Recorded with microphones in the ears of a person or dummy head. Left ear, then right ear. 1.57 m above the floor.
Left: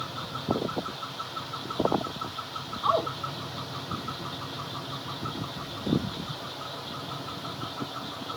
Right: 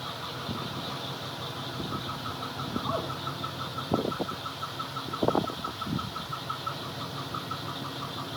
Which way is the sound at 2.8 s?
65° left (ahead or behind).